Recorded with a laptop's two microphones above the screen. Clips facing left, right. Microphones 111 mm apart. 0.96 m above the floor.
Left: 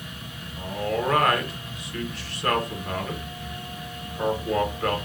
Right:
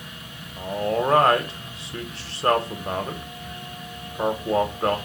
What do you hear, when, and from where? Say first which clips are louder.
0.6 s a man speaking: right 3 dB; 30° right (ahead or behind), 0.7 m